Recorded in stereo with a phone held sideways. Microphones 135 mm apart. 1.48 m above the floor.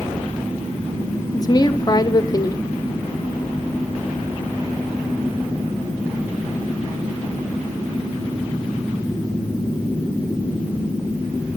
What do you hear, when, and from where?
1.3 s a woman speaking: 30° left (ahead or behind), 0.7 m